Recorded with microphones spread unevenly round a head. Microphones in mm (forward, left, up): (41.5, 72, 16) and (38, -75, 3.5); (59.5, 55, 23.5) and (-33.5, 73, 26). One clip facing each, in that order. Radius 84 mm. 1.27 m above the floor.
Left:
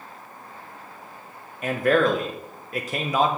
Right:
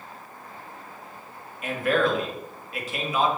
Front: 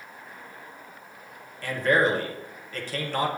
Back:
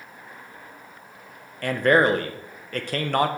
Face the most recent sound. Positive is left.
turn(degrees=145)